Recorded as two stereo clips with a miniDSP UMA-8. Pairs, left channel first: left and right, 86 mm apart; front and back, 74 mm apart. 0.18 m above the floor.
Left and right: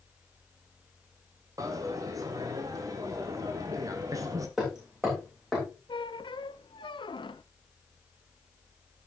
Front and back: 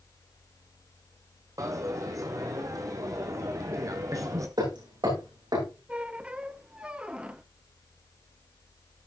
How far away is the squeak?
About 0.6 m.